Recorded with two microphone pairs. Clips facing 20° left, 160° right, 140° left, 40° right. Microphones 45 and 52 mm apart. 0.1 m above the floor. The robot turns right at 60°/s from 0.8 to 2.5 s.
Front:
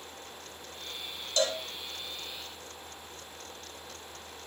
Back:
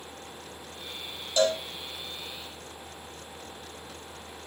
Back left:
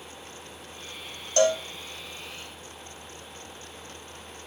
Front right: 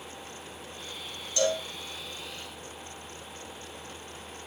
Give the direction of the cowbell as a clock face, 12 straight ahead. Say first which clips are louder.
Back 5 dB, back left 5 dB; 8 o'clock.